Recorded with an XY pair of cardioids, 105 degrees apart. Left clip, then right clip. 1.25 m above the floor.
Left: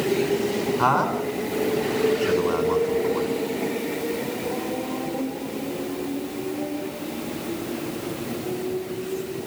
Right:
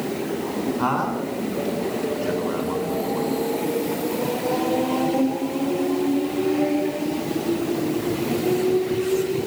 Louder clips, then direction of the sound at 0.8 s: Left 3 dB; 30° left.